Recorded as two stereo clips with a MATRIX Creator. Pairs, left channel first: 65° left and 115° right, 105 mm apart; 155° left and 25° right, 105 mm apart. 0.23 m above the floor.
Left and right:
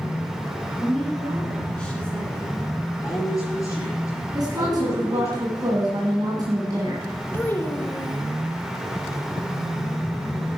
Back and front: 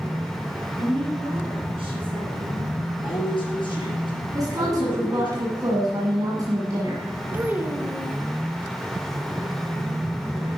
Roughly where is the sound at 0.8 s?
Ahead.